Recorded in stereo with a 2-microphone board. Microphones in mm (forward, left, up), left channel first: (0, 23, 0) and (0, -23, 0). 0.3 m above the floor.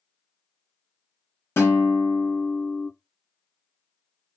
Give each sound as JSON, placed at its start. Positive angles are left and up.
{"t": 1.6, "sound": "a guitar", "side_deg": 80, "distance_m": 1.1}